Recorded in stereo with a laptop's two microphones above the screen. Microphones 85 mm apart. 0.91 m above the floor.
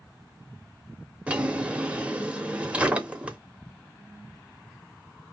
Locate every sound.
1.3 s a drawer: 15° right (ahead or behind), 0.8 m